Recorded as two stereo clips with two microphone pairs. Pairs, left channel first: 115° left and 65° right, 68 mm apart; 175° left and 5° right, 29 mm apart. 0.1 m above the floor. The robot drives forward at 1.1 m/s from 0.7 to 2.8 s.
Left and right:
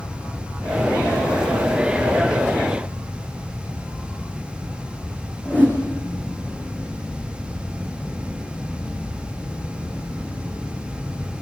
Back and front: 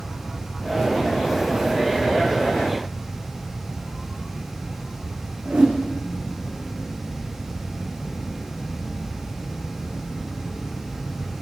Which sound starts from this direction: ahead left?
A whoosh, at 5.5 s.